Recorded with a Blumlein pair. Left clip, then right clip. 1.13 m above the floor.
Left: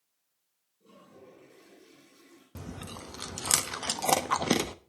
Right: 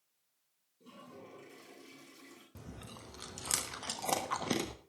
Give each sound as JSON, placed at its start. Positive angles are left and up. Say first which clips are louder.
{"t": 0.8, "sound": "a toilet flushing", "louder": "right 1 dB", "azimuth_deg": -70, "distance_m": 8.0}
{"t": 2.5, "sound": "chewing", "louder": "left 9 dB", "azimuth_deg": 20, "distance_m": 1.1}